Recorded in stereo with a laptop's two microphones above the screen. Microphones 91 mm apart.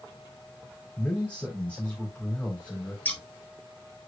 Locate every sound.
1.0 s a man speaking: 15° left (ahead or behind), 3.5 m
3.0 s scissors: 15° left (ahead or behind), 1.3 m